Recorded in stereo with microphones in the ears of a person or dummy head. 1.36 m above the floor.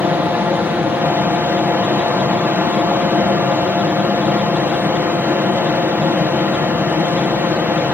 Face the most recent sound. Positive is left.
turn(degrees=-10)  # may be behind; listen again after turning